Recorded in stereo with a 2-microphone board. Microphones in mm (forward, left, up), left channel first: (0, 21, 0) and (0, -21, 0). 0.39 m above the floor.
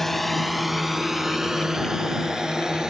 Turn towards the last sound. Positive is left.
turn(degrees=-20)  # may be behind; listen again after turning